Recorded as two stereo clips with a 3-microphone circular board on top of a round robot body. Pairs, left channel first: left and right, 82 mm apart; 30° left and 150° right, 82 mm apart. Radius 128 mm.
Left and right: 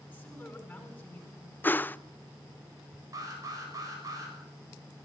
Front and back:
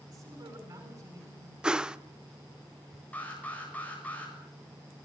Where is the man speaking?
165° left, 9 m.